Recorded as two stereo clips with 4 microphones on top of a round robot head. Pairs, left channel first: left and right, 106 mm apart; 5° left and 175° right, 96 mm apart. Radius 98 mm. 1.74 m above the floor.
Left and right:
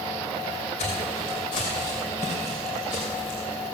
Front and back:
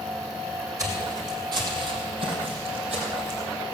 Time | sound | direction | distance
0.8 | footsteps | 135° left | 3.5 m